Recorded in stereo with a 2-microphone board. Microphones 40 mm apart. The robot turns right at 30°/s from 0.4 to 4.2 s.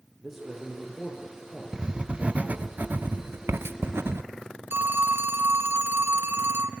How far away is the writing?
About 0.9 m.